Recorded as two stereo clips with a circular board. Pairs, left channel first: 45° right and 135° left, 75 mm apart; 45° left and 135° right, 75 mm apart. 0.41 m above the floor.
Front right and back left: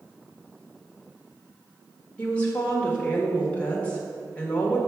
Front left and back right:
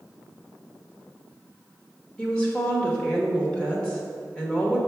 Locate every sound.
2.2 s a woman speaking: 10° right, 1.1 m